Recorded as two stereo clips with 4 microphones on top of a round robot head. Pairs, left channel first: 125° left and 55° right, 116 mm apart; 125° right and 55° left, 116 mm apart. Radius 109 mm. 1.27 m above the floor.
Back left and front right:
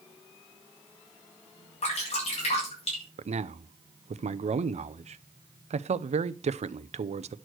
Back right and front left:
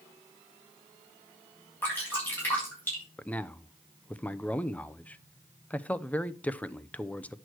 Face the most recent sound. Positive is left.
turn(degrees=-50)